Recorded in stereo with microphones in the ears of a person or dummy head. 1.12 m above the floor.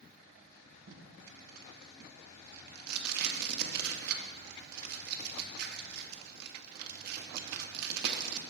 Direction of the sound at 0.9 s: 60° right (ahead or behind).